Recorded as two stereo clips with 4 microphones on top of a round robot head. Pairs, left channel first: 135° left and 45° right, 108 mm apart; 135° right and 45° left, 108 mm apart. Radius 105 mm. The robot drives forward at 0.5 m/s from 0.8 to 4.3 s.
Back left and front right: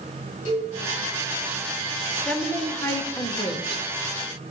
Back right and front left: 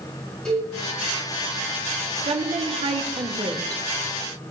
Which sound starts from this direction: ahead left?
A woman speaking, at 2.2 s.